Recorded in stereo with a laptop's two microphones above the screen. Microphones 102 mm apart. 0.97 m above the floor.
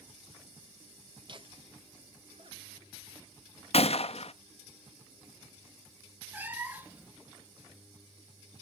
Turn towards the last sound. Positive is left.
turn(degrees=-15)  # may be behind; listen again after turning